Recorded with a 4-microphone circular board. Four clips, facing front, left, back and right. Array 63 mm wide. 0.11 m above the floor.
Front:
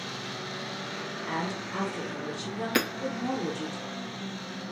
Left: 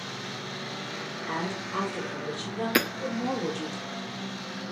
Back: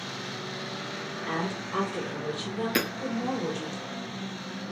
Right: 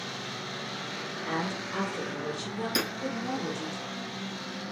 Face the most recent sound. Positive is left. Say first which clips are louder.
# left 7 dB, front 2 dB
turn(degrees=85)